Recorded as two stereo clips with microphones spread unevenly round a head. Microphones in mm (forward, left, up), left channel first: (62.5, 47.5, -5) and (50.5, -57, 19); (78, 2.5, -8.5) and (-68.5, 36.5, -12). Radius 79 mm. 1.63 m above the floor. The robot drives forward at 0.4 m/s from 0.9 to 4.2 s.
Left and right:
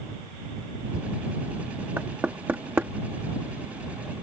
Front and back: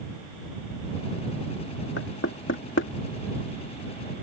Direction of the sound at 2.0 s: 25° right.